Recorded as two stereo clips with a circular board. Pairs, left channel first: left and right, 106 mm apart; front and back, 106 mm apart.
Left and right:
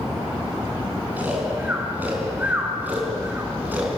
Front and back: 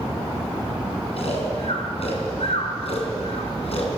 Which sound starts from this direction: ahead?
Snoring, at 1.2 s.